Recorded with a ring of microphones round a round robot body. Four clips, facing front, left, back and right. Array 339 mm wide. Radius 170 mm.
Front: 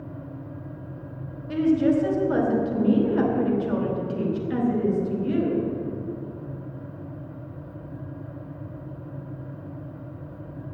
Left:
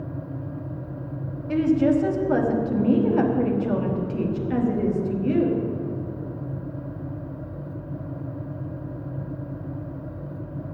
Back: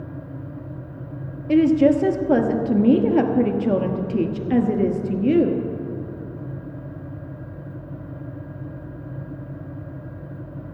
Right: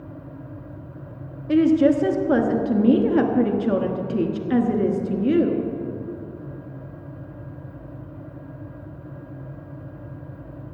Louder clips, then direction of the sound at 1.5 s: Right 3 dB, back 5 dB; 145° right.